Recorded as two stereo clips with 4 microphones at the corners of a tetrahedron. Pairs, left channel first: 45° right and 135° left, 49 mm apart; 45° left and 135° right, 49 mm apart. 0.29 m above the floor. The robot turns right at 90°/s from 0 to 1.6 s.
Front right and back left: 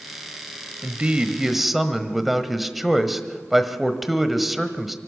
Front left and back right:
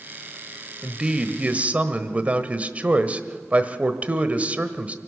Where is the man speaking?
150° left, 1.2 m; by 5.0 s 140° right, 1.2 m.